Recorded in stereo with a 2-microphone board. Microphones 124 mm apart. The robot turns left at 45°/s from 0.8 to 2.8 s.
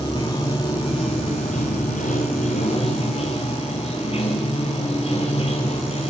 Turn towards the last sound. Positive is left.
turn(degrees=55)